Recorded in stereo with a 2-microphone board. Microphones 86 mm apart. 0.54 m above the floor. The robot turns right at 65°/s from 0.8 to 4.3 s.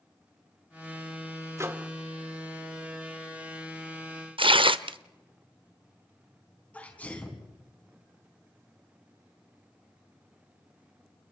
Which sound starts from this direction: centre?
A sneeze, at 6.7 s.